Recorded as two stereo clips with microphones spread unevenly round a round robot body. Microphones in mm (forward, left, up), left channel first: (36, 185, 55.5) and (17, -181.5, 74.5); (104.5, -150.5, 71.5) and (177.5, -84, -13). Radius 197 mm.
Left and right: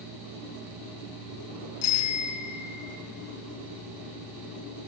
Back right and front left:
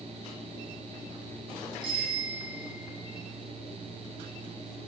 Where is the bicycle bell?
115° left, 5 m.